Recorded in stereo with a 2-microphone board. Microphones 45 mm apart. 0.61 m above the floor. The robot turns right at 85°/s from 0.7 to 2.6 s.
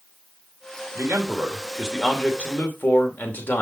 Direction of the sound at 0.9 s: 85° right.